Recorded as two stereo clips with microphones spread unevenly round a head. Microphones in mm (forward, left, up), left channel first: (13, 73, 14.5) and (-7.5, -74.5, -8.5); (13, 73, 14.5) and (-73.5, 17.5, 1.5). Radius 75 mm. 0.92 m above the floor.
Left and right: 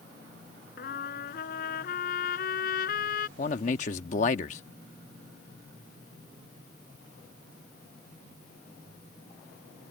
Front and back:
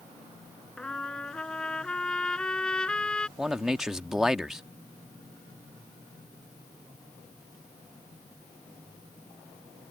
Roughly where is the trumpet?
Behind left.